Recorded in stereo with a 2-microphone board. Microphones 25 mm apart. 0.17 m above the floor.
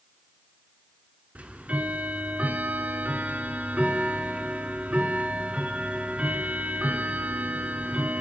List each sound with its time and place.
1.4 s ticking: 60° right (ahead or behind), 0.6 m